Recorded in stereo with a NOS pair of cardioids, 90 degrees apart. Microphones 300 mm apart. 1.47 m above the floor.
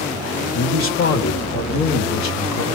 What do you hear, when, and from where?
0.5 s a man speaking: 45° left, 2 m; by 2.6 s 80° left, 1.1 m